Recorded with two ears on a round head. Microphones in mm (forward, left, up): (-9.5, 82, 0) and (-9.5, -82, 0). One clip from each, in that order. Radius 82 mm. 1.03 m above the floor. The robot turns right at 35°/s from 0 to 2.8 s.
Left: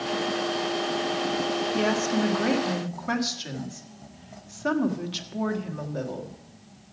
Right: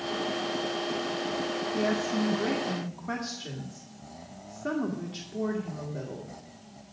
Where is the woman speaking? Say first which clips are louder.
Left 2 dB; 60° left, 1.7 m; by 6.4 s 100° left, 1.7 m.